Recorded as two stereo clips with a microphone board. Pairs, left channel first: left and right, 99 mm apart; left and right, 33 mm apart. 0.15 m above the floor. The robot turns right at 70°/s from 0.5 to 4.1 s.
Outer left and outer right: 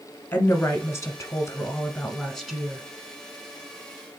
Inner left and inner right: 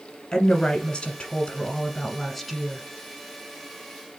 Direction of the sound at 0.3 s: 40° left.